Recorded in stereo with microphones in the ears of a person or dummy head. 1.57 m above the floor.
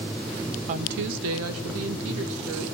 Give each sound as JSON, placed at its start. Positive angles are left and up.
{"t": 0.7, "sound": "a woman speaking", "side_deg": -40, "distance_m": 0.8}